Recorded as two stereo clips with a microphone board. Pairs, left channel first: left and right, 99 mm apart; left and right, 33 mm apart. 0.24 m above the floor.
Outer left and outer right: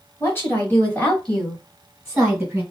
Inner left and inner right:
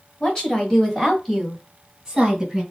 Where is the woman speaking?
30° left (ahead or behind), 1.5 m; by 2.6 s 15° right (ahead or behind), 1.5 m.